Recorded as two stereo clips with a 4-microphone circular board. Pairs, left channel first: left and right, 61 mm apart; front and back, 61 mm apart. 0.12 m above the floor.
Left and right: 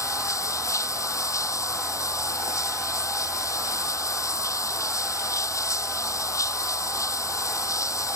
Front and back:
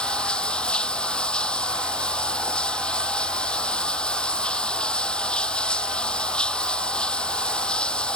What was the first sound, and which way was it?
Running water, 75° left.